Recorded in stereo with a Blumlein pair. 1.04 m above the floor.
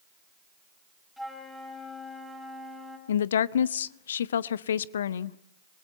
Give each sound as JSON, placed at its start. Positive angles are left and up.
{"t": 1.2, "sound": "a flute", "azimuth_deg": 0, "distance_m": 5.5}
{"t": 3.1, "sound": "a woman speaking", "azimuth_deg": 65, "distance_m": 0.7}